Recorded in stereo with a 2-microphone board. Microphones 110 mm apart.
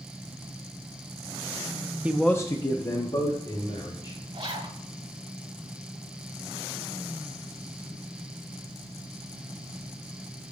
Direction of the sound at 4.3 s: 55° right (ahead or behind).